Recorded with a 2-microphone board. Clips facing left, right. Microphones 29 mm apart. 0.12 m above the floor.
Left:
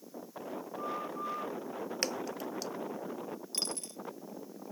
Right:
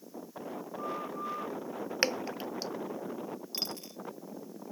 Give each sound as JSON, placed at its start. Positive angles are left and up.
{"t": 2.0, "sound": "dripping", "side_deg": -30}
{"t": 3.5, "sound": "a dropped coin", "side_deg": -10}